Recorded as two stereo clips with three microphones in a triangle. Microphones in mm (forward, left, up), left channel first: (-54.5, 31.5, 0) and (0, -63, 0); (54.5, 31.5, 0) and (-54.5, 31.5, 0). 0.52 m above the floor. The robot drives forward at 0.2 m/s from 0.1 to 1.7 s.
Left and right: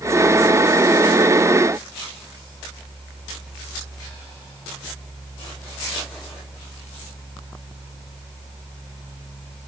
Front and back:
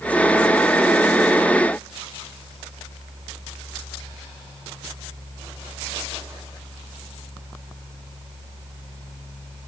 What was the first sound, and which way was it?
Only background noise.